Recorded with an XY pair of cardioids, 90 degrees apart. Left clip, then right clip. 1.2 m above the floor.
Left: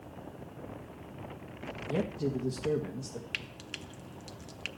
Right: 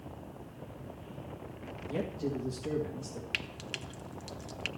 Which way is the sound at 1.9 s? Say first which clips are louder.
Left 2 dB; 65° left.